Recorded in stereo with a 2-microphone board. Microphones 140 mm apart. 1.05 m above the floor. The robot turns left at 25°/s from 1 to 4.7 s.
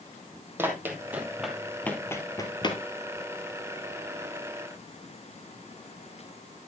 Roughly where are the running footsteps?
Centre.